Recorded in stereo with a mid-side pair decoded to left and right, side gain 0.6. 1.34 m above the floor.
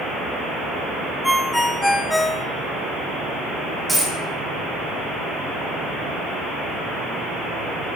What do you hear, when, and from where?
1.2 s a ringtone: 5° left, 0.6 m
3.9 s a dropped coin: 5° right, 2.5 m